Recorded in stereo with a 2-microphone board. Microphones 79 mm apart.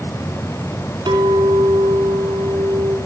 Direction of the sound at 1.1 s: 65° right (ahead or behind).